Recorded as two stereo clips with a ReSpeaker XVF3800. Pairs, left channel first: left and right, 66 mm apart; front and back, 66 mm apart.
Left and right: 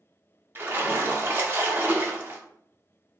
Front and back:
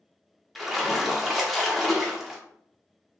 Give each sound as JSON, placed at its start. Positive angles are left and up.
{"t": 0.6, "sound": "a splash", "azimuth_deg": -90, "distance_m": 0.9}